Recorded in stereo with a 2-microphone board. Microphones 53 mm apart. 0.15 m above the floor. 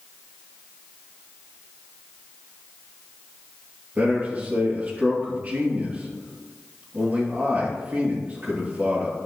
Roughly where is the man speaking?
Right.